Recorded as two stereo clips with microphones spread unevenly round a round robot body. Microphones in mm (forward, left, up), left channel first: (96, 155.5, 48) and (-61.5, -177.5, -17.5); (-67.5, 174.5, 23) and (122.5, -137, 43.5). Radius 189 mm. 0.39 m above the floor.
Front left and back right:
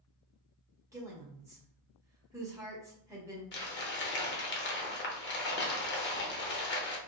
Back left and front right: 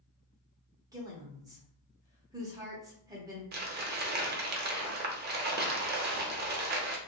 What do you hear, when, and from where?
0.9 s a woman speaking: 130° right, 0.8 m
3.5 s crumpling: straight ahead, 0.7 m